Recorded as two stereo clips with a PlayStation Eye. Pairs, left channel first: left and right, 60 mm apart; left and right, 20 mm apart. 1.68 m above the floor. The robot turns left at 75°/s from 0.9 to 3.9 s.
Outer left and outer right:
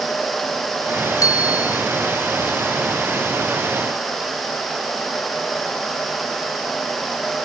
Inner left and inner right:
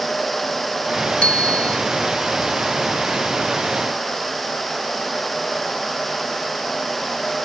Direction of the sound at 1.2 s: 105° left.